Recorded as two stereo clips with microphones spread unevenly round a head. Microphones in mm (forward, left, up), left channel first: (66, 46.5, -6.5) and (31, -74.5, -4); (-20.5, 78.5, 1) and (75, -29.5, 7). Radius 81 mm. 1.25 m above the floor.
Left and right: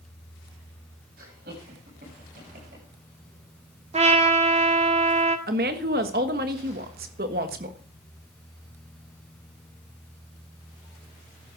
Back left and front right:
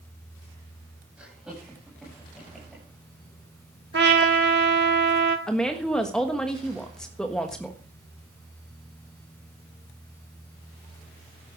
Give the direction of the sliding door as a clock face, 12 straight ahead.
No sliding door in this recording.